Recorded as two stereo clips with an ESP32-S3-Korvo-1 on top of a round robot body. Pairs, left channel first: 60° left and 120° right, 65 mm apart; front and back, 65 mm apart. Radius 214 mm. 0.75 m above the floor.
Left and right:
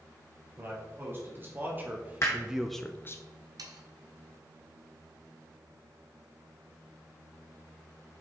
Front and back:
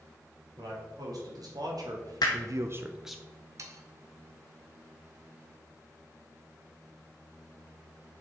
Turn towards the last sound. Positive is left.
turn(degrees=-140)